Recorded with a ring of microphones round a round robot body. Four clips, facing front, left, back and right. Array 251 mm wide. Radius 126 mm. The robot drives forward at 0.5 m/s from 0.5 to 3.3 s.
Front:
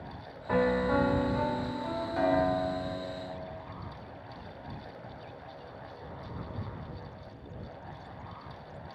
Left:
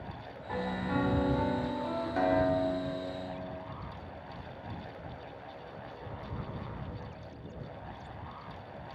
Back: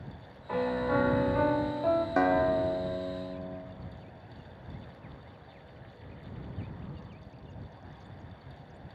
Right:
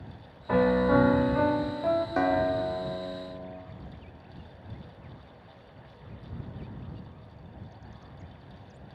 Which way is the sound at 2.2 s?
150° right.